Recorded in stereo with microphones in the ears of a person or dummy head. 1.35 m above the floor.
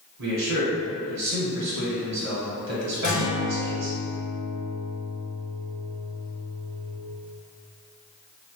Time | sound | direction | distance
0.2 | a man speaking | 65° right (ahead or behind) | 1.1 m
3.0 | a guitar | 30° left (ahead or behind) | 1.8 m